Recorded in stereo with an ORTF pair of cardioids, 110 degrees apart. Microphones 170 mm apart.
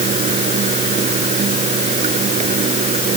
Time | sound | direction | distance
0.0 | running water | 45° right | ?